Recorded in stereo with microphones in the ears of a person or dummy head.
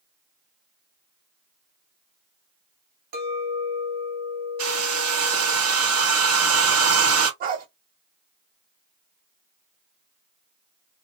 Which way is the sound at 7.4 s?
45° right (ahead or behind).